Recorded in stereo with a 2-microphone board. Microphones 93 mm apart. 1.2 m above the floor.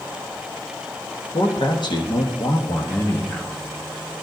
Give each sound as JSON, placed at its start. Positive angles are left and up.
{"t": 1.3, "sound": "a man speaking", "side_deg": 65, "distance_m": 1.5}